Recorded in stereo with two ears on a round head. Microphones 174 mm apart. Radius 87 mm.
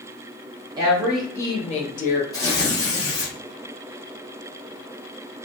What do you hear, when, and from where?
0.8 s a woman speaking: 20° right (ahead or behind), 0.7 m; by 2.2 s 45° left (ahead or behind), 0.8 m
2.3 s tearing paper: 20° left (ahead or behind), 0.9 m